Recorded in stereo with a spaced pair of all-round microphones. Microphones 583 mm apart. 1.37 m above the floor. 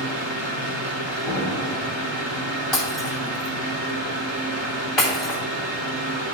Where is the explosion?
45° left (ahead or behind), 1.4 m.